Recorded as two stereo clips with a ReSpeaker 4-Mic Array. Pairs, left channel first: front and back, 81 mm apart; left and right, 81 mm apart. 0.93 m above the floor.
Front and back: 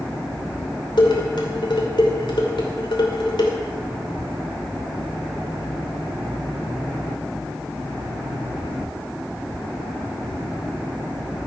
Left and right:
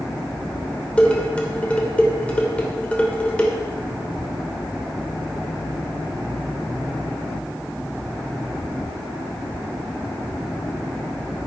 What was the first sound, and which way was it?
Dishes clattering, 15° left.